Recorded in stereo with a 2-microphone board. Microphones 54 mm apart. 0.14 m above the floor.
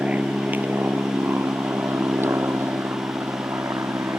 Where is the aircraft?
25° right (ahead or behind); by 4.2 s 55° right (ahead or behind).